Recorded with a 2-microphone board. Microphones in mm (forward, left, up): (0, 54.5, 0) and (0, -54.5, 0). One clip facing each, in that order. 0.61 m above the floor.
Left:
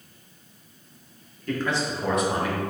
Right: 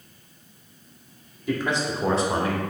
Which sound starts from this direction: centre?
A man speaking, at 1.5 s.